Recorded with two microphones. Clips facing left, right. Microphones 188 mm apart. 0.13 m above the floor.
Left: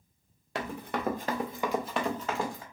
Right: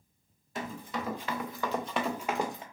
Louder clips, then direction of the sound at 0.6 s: Left 3 dB; 80° left.